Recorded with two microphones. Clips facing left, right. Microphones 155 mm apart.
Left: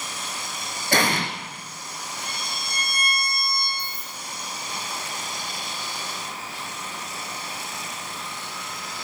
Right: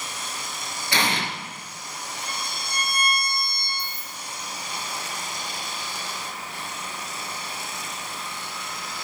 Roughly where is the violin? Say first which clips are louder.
Right 1 dB; left.